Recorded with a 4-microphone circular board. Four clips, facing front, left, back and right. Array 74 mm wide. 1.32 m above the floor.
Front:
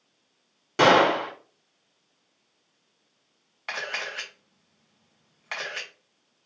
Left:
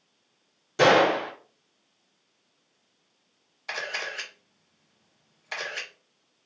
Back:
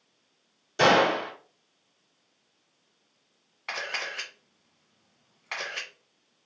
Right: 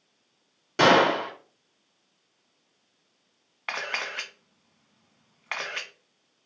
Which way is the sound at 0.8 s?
30° right.